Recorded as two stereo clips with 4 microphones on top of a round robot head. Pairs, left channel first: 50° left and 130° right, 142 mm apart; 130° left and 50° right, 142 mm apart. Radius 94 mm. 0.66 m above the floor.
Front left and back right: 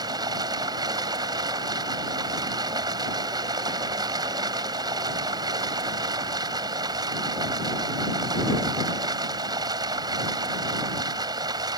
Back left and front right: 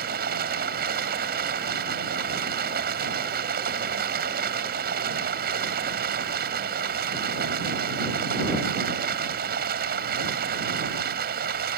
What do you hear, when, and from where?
0.0 s running water: 65° right